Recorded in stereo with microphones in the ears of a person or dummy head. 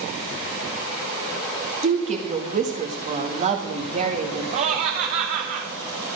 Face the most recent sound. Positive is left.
turn(degrees=-45)  # may be behind; listen again after turning